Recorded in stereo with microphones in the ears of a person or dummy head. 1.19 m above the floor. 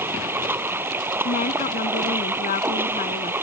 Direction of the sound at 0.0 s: 10° right (ahead or behind).